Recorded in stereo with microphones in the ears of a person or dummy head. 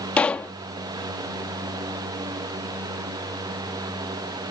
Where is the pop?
5° left (ahead or behind).